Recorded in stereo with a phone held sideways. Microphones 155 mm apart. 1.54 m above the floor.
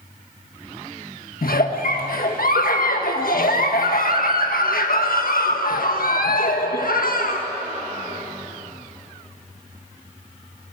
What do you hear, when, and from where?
1.4 s a giggle: 75° left (ahead or behind), 1.5 m